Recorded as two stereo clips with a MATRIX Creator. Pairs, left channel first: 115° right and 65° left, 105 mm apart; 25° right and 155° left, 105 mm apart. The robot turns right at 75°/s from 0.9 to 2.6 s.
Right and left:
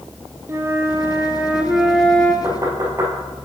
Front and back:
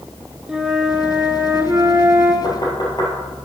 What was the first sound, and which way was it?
A flute, 85° left.